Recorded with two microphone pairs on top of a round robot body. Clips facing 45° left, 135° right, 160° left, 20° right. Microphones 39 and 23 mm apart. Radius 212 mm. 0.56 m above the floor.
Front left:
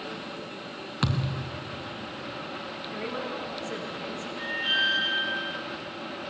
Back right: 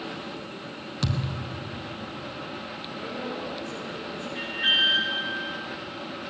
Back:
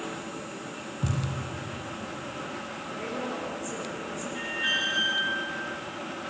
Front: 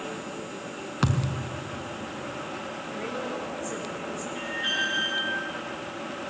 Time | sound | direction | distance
1.0 | a thud | 15° right | 1.1 m
2.9 | a woman speaking | 65° left | 6.5 m
4.3 | an alarm | 115° right | 7.5 m